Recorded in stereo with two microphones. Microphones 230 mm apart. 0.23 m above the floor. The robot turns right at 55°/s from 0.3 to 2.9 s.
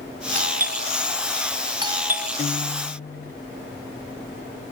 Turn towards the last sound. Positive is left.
turn(degrees=65)  # may be behind; listen again after turning